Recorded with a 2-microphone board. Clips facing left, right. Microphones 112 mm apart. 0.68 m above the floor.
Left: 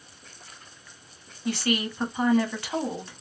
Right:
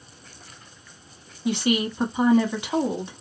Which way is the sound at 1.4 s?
20° right (ahead or behind).